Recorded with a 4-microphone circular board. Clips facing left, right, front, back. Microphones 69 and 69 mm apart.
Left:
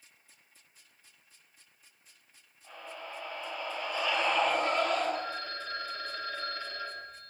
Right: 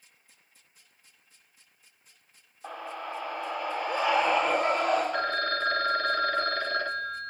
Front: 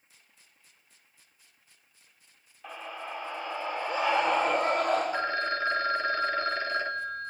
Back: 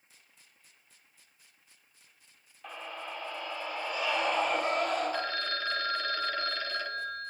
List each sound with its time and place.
2.6 s a scream: 85° right, 3.5 m; by 5.0 s 40° right, 5 m
5.1 s a phone ringing: 65° right, 1.5 m